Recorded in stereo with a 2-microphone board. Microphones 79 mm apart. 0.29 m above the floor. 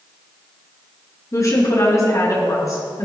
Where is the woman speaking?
45° left (ahead or behind), 4.5 m.